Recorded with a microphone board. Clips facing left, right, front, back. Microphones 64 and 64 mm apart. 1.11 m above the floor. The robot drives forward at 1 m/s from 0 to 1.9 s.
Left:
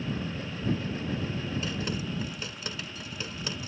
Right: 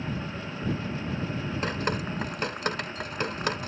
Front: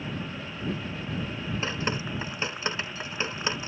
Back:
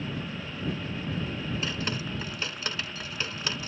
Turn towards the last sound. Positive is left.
turn(degrees=-65)